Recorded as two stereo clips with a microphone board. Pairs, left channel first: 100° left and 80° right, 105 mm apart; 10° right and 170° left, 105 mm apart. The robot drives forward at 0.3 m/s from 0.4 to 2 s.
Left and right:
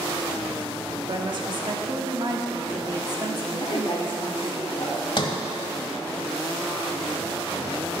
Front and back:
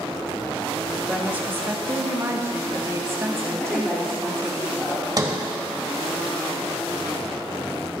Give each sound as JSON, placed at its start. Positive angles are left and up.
{"t": 1.1, "sound": "a woman speaking", "azimuth_deg": -115, "distance_m": 1.2}
{"t": 3.6, "sound": "a woman speaking", "azimuth_deg": 70, "distance_m": 1.2}
{"t": 5.2, "sound": "a sliding door", "azimuth_deg": 130, "distance_m": 1.1}